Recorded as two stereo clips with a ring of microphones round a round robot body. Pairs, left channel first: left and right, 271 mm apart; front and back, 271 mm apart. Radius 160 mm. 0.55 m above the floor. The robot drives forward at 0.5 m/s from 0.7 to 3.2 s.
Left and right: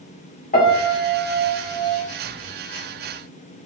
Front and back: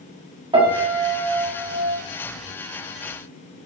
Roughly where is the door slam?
No door slam in this recording.